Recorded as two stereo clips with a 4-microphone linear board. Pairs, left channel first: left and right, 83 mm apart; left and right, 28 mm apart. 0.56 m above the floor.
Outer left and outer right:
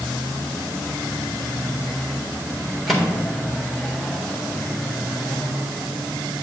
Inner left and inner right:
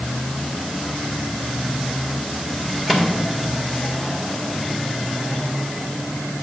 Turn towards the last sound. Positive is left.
turn(degrees=0)  # may be behind; listen again after turning